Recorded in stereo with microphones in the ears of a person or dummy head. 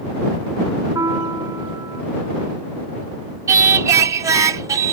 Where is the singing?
15° right (ahead or behind).